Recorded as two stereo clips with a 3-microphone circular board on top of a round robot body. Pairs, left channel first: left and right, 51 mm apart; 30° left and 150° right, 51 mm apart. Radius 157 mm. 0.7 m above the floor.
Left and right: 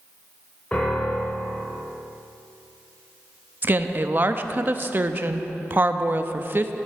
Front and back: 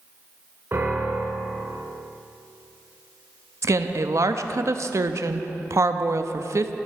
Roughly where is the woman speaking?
Behind right.